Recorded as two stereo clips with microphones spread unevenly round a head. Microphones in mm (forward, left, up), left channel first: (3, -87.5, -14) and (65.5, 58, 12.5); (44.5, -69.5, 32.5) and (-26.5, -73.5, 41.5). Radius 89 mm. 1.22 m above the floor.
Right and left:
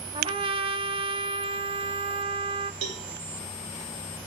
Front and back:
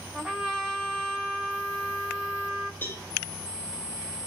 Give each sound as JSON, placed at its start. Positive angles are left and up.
{"t": 0.1, "sound": "a trumpet", "azimuth_deg": 110, "distance_m": 0.6}
{"t": 2.8, "sound": "a cowbell", "azimuth_deg": 75, "distance_m": 2.5}